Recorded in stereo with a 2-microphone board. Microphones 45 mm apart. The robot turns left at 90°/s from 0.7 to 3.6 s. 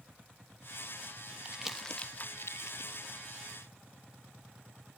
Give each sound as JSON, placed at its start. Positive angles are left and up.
{"t": 1.4, "sound": "crumpling", "side_deg": -30}